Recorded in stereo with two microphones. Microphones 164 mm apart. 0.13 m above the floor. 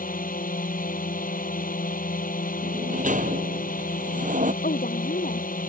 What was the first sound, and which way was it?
A drone, 65° left (ahead or behind).